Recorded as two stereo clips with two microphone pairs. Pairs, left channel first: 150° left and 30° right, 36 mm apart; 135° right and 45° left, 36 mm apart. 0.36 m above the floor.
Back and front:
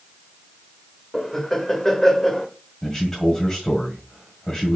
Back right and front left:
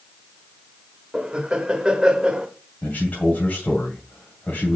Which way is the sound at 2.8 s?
140° right.